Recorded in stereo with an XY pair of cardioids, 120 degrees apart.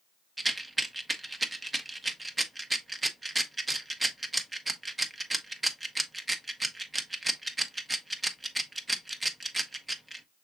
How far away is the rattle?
About 0.7 m.